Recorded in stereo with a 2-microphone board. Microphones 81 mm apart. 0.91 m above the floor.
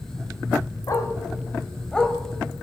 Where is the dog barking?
45° left (ahead or behind), 2 m; by 2.2 s 5° left (ahead or behind), 1.8 m.